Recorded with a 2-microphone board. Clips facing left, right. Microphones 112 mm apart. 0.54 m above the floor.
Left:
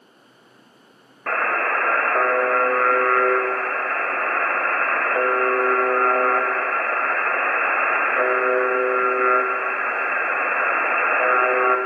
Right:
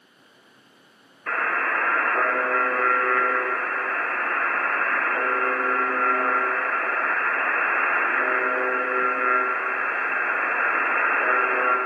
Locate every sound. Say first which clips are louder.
1.3 s a buzzer: left 3 dB; 60° left (ahead or behind), 1.8 m